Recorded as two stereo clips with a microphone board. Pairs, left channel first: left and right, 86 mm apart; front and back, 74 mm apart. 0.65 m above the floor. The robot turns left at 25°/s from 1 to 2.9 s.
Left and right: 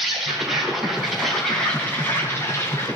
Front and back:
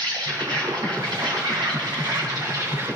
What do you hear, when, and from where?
0.0 s an insect: 175° right, 4 m; by 3.0 s 135° left, 4 m